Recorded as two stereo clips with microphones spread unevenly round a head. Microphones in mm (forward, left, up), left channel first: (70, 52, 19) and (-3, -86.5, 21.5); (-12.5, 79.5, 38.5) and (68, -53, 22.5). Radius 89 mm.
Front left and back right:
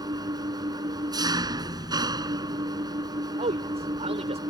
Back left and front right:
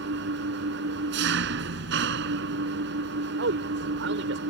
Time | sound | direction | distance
0.0 | an engine running | 55° right | ?
3.4 | a man speaking | 65° right | ?